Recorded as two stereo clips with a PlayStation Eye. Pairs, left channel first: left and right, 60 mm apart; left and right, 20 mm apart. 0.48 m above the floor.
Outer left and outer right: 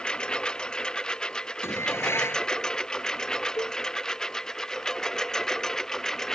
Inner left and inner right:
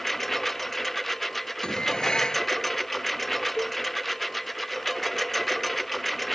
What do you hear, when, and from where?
0.0 s a lawn mower: 15° left (ahead or behind); by 6.4 s 5° left (ahead or behind)
1.6 s dishes clattering: 45° left (ahead or behind)
3.6 s a cowbell: 65° left (ahead or behind)